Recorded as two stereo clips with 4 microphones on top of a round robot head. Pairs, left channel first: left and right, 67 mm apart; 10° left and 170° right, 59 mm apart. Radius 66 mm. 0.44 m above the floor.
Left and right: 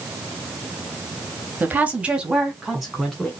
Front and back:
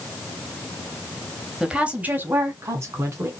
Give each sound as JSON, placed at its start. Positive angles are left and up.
{"t": 1.6, "sound": "a woman speaking", "azimuth_deg": -105, "distance_m": 1.3}